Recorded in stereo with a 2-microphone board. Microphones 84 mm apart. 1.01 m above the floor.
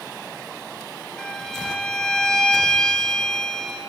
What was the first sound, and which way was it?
A violin, 10° left (ahead or behind).